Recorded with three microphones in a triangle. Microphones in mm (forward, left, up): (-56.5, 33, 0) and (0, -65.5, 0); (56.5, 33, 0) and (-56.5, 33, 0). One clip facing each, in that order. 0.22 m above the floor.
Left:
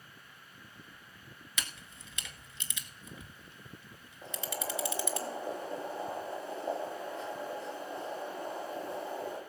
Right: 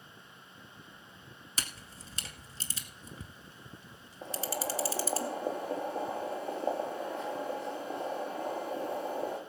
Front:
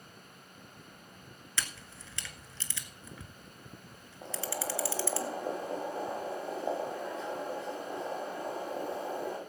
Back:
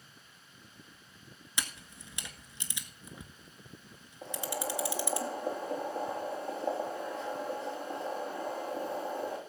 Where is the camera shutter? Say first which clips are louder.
Right 1 dB, even; 110° right, 1.2 m.